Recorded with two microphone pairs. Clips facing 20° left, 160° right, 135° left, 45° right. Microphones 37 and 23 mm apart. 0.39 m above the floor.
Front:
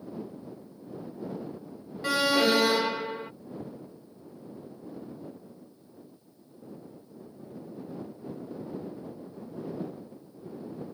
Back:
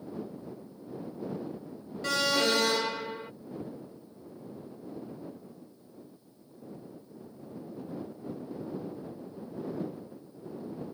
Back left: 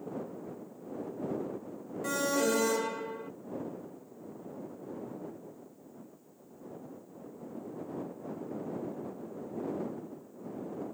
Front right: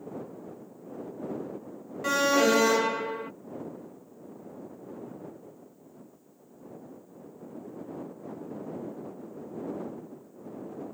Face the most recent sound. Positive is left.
turn(degrees=-50)